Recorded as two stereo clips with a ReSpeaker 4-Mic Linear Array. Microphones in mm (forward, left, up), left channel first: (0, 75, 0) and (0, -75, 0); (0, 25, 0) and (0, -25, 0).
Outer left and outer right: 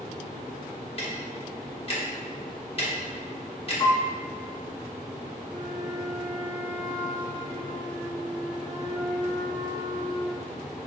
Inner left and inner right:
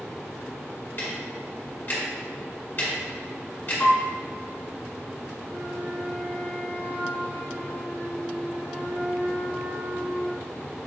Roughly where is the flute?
Right.